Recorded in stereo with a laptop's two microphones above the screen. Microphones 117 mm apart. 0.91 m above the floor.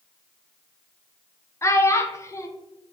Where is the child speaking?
25° left (ahead or behind), 0.5 m.